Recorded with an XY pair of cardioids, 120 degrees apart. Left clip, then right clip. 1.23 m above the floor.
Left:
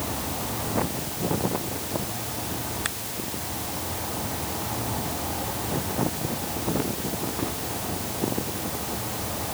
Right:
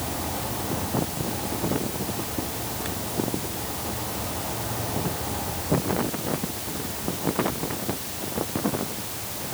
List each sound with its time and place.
Only background noise.